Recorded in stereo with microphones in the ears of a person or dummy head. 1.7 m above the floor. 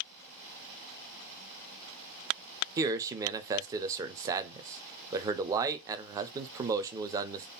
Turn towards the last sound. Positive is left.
turn(degrees=-15)  # may be behind; listen again after turning